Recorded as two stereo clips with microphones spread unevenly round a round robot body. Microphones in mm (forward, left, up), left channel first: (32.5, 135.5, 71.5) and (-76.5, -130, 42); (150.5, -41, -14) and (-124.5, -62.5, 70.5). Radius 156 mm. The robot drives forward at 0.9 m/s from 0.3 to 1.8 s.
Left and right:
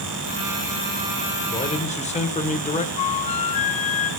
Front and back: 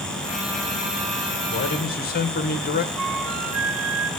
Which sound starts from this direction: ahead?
A man speaking, at 1.5 s.